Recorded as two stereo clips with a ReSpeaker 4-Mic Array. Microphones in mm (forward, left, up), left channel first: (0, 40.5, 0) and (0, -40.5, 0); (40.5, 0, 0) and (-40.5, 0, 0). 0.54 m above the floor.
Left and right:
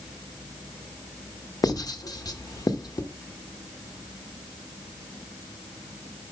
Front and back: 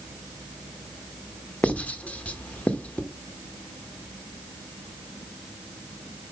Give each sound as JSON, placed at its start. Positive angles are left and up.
{"t": 1.6, "sound": "writing", "azimuth_deg": 70, "distance_m": 1.0}